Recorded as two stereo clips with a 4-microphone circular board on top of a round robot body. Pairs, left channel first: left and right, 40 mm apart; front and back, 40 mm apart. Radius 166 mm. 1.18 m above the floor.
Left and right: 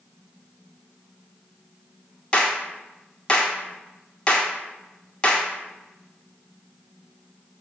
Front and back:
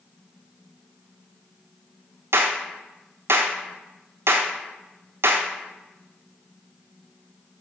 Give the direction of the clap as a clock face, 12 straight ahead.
7 o'clock.